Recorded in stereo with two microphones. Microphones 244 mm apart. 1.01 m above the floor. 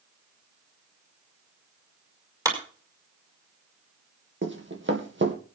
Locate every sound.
2.5 s a clap: 15° right (ahead or behind), 5 m
4.4 s running footsteps: 50° right (ahead or behind), 2.5 m